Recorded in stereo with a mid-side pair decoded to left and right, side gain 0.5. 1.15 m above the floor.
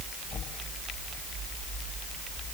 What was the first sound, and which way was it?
Only background noise.